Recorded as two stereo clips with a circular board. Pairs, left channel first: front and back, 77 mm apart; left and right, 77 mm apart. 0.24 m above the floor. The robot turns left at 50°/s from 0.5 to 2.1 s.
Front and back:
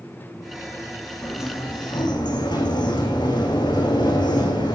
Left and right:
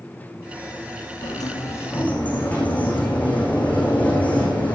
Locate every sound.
1.2 s a sliding door: 60° left, 5 m; by 4.8 s 20° left, 5 m